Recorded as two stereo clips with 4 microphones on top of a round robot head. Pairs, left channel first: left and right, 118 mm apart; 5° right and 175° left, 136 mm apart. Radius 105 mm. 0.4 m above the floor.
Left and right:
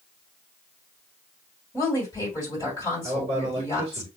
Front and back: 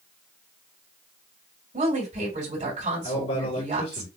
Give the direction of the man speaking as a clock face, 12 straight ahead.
1 o'clock.